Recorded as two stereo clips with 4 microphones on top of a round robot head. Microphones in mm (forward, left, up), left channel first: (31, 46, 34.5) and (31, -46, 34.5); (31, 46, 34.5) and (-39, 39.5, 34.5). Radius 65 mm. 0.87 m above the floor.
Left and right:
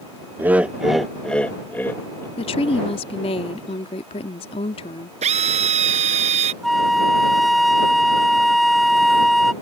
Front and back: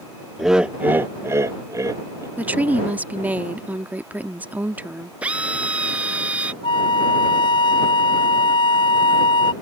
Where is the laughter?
95° right; by 2.3 s 155° left.